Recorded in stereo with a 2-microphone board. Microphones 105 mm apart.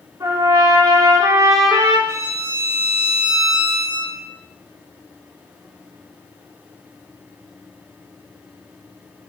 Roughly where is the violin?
Right.